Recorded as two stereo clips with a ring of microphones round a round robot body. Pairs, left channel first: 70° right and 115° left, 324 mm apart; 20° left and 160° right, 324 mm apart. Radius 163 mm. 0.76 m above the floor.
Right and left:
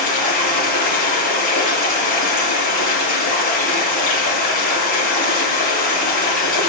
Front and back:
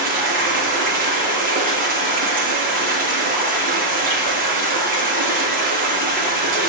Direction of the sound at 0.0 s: 90° right.